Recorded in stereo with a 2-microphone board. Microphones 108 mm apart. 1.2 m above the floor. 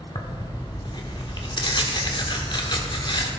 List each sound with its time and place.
0.1 s tearing paper: 45° left (ahead or behind), 1.6 m